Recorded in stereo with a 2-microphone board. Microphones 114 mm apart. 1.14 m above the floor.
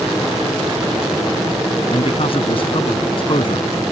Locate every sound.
1.9 s a man speaking: 55° left (ahead or behind); by 3.8 s 50° left (ahead or behind)